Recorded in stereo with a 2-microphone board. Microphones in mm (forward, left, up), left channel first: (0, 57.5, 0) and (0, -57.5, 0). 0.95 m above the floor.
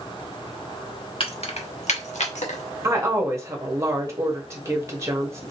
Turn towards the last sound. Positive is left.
turn(degrees=-25)  # may be behind; listen again after turning